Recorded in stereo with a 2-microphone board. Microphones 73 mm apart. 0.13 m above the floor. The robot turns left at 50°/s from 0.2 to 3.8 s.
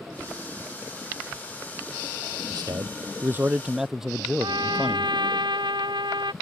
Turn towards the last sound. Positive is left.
turn(degrees=-80)